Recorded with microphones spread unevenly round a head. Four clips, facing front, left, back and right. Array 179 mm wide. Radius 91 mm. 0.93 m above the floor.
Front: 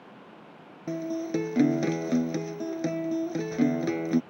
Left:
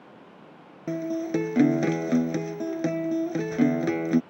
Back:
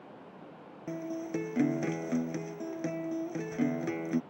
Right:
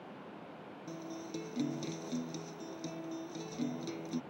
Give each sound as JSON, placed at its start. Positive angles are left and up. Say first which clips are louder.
{"t": 0.9, "sound": "a guitar", "louder": "left 17 dB, front 6 dB", "azimuth_deg": 55}